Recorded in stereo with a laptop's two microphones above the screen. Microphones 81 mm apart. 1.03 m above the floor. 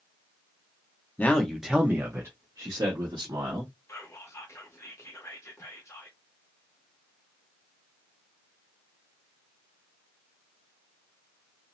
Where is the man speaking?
20° left (ahead or behind), 0.7 m; by 3.7 s 60° right (ahead or behind), 1.4 m.